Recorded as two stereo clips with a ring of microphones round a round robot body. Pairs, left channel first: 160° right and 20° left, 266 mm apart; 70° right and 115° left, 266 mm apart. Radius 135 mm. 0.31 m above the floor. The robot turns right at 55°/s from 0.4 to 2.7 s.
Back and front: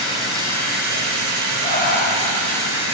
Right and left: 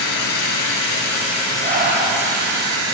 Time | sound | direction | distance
0.0 | running water | 55° right | 1.4 m
1.6 | breathing | 150° left | 1.0 m